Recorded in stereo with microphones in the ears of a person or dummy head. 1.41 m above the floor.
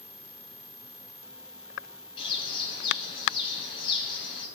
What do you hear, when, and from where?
2.2 s a bird: 30° left (ahead or behind), 0.8 m